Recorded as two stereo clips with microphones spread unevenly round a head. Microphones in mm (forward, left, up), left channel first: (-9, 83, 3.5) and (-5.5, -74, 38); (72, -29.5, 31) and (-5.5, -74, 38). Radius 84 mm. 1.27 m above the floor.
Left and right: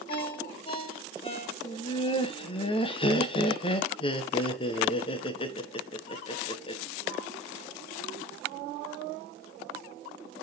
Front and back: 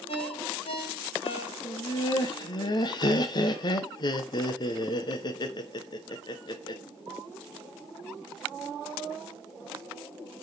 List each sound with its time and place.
0.1 s a ringtone: 30° left, 2 m
1.6 s laughter: 50° left, 0.9 m